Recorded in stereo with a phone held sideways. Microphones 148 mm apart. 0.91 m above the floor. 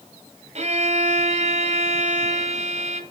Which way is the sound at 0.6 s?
50° right (ahead or behind).